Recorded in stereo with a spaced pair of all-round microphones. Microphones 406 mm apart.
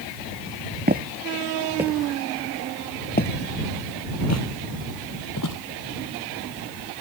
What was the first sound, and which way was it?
Footsteps, 25° right (ahead or behind).